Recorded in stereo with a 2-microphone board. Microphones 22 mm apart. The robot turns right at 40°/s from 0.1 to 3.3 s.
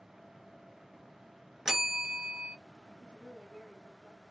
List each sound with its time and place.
1.6 s a bell: 160° right, 1.3 m; by 2.5 s 125° right, 1.3 m
3.0 s a woman speaking: 55° right (ahead or behind), 1.7 m; by 4.2 s 45° right (ahead or behind), 1.7 m